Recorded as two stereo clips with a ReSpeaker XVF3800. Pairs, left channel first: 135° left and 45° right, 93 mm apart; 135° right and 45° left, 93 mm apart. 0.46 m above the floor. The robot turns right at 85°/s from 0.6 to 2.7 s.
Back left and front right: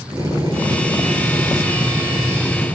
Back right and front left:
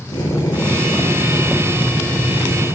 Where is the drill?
95° right, 8 m; by 2.7 s 80° left, 8 m.